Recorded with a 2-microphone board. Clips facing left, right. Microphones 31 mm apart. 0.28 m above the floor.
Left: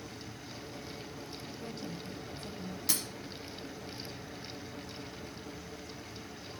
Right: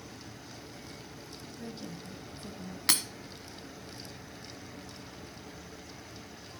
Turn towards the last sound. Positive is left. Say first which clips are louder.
# right 7 dB
turn(degrees=-65)  # may be behind; listen again after turning